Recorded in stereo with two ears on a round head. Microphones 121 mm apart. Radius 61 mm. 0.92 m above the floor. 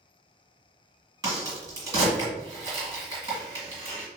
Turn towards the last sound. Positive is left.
turn(degrees=-30)  # may be behind; listen again after turning